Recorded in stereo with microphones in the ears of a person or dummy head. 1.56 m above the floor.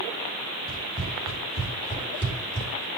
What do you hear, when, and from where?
0.7 s running footsteps: 25° right (ahead or behind), 3.5 m; by 2.9 s 50° right (ahead or behind), 4 m